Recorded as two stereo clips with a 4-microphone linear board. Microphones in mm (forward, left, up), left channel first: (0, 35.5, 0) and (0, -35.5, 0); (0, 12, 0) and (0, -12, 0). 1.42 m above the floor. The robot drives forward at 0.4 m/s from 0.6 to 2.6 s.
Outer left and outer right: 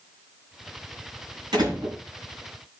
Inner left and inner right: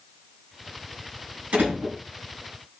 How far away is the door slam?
About 8 m.